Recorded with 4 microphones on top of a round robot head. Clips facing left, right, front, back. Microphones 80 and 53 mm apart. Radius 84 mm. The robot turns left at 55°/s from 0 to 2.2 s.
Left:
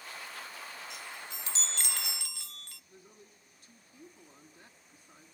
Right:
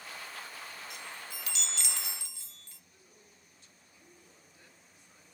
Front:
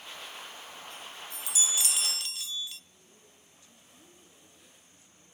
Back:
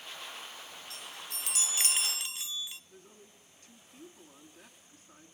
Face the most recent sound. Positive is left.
turn(degrees=135)